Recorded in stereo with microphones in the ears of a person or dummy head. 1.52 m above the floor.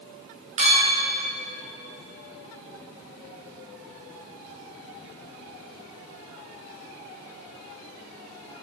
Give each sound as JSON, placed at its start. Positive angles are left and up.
{"t": 0.6, "sound": "a clink", "side_deg": -30, "distance_m": 1.5}